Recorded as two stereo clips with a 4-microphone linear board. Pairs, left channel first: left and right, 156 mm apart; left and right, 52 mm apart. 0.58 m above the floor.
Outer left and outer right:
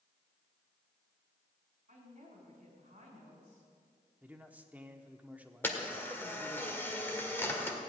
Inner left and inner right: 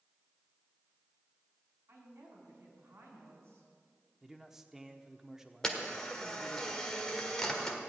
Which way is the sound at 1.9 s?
50° right (ahead or behind).